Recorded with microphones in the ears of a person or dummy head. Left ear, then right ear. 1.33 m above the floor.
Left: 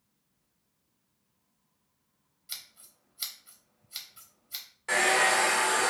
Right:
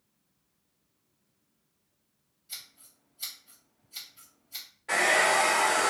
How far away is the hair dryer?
About 1.4 m.